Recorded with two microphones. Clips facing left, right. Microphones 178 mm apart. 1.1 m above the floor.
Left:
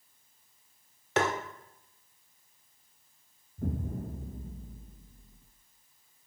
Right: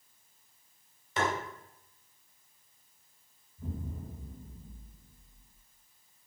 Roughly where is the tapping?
Left.